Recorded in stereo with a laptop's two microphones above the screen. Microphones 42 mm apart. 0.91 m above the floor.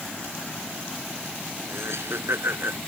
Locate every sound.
1.7 s laughter: 85° right; by 2.8 s 80° right